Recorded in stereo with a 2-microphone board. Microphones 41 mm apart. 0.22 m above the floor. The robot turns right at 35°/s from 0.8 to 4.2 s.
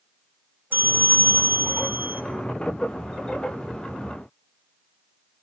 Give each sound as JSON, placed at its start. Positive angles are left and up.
{"t": 0.7, "sound": "a bell", "azimuth_deg": -125, "distance_m": 2.0}